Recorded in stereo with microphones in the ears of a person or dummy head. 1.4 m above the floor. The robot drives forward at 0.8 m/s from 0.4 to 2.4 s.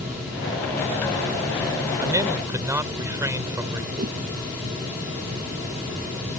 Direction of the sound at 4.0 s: 50° right (ahead or behind).